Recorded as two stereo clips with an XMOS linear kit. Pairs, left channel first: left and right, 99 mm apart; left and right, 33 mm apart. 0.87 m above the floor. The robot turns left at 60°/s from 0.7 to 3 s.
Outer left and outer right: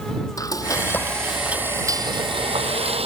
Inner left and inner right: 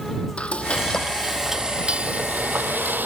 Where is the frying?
35° left; by 3.1 s 100° right.